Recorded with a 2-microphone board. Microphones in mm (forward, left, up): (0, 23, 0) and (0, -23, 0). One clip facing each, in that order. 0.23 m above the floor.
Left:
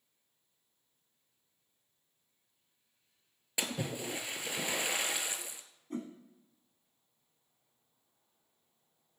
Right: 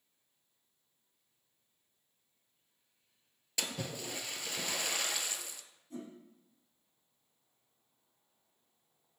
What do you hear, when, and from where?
3.6 s a splash: 20° left (ahead or behind), 0.9 m
5.9 s a whoosh: 55° left (ahead or behind), 1.8 m